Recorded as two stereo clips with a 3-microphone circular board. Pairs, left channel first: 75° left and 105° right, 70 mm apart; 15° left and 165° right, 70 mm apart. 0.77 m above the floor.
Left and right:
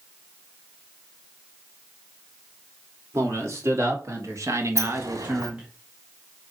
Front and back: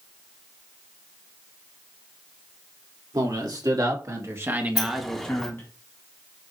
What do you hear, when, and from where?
3.1 s a man speaking: 150° right, 3 m; by 5.7 s 25° right, 1.6 m
4.8 s a sliding door: 70° right, 1.4 m